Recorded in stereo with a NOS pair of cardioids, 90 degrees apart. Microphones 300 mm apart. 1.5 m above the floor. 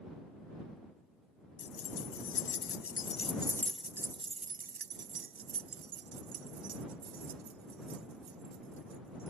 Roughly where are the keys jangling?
Ahead left.